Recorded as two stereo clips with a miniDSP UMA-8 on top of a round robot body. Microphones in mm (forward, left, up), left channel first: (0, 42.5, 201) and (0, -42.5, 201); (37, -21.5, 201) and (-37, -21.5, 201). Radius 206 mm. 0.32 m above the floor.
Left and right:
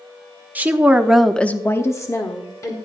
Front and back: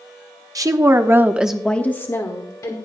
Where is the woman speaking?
155° right, 1.5 m; by 2.8 s 40° left, 1.9 m.